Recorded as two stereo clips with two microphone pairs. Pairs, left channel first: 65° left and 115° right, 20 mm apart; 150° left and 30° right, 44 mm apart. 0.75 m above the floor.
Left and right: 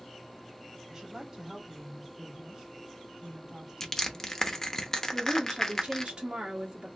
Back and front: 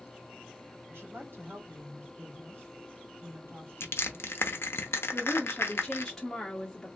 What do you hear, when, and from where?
0.9 s a woman speaking: 50° right, 1.9 m
3.8 s crushing: 130° left, 0.7 m
5.1 s a woman speaking: 130° right, 1.0 m